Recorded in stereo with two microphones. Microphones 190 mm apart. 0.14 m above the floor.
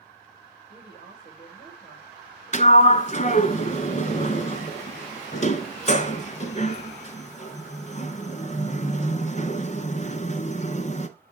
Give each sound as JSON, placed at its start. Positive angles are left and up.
{"t": 0.7, "sound": "a woman speaking", "side_deg": 50, "distance_m": 6.5}
{"t": 2.5, "sound": "a sliding door", "side_deg": 40, "distance_m": 0.6}